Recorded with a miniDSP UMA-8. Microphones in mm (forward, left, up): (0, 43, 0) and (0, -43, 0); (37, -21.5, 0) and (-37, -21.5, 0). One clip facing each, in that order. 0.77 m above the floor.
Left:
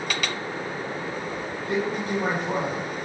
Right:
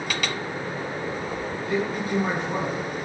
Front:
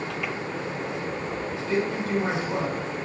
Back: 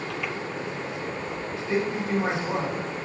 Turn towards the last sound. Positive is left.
turn(degrees=115)